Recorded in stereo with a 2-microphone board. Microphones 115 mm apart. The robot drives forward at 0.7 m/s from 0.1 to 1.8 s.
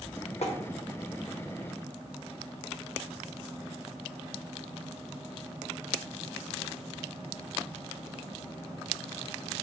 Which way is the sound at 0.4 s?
65° left (ahead or behind).